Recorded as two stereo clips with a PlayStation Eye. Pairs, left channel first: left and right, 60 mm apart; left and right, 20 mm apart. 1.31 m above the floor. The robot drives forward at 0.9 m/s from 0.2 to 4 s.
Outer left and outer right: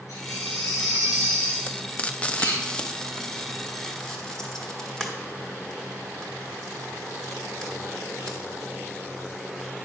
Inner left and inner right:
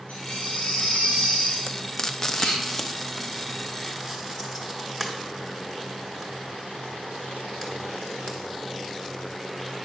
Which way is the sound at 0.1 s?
85° left.